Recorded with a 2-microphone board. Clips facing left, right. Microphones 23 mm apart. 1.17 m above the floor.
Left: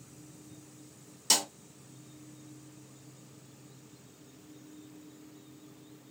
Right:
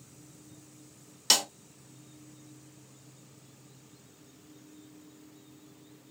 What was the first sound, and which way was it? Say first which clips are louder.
A snare drum: right 3 dB; 45° right (ahead or behind).